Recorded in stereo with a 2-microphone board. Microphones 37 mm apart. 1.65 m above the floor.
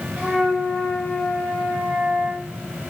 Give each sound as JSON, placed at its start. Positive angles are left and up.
{"t": 0.2, "sound": "a flute", "side_deg": -15, "distance_m": 4.5}